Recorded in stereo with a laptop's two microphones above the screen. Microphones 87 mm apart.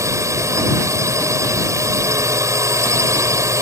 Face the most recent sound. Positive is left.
turn(degrees=-35)  # may be behind; listen again after turning